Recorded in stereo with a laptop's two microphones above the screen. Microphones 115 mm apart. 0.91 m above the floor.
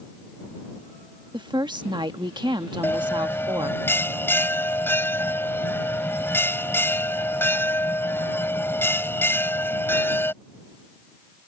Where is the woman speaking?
40° right (ahead or behind).